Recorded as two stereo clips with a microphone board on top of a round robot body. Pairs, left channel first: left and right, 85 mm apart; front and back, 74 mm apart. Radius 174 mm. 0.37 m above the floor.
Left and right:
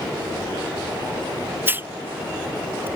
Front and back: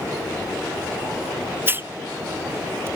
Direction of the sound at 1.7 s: 140° right.